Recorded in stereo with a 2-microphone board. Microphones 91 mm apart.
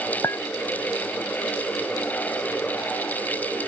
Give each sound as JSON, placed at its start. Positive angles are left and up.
{"t": 0.2, "sound": "a clink", "side_deg": 35}